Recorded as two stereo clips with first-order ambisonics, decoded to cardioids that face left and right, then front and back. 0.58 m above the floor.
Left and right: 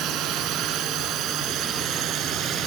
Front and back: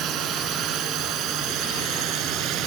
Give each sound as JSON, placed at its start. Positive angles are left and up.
{"t": 0.0, "sound": "a drone", "azimuth_deg": -130}